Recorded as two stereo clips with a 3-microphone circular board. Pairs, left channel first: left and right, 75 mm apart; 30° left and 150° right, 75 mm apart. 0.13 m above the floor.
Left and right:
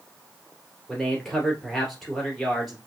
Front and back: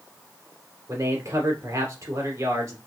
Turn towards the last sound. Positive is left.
turn(degrees=180)